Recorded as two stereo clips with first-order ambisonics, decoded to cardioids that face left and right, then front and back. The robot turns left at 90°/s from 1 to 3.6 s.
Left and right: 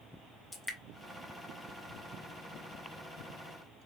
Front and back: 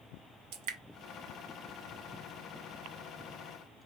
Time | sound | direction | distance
0.5 | dripping | straight behind | 0.7 m